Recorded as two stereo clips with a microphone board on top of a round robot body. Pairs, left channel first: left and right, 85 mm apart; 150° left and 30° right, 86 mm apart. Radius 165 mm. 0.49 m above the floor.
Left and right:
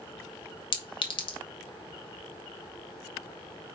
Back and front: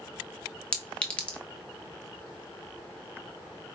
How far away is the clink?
About 1.4 m.